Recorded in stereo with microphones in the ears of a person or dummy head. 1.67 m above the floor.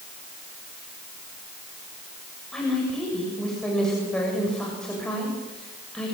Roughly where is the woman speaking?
Centre.